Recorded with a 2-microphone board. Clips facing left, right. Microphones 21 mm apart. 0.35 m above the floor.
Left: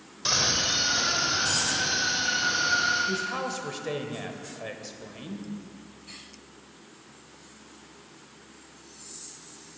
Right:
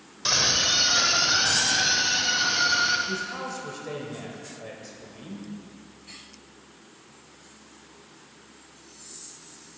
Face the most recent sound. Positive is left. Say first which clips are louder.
# left 2 dB
turn(degrees=30)  # may be behind; listen again after turning